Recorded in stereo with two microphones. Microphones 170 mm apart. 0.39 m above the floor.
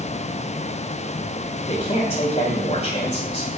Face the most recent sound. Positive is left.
turn(degrees=40)  # may be behind; listen again after turning